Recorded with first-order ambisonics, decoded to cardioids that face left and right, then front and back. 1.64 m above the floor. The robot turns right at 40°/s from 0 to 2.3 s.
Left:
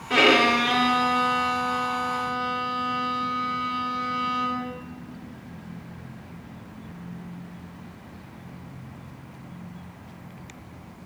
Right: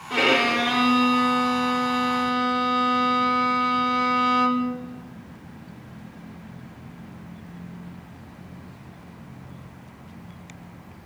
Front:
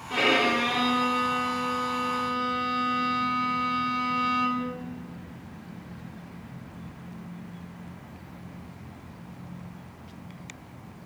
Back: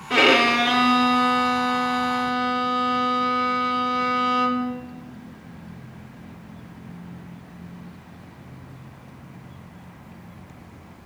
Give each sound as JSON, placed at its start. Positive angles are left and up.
{"t": 0.1, "sound": "a violin", "azimuth_deg": 150, "distance_m": 0.9}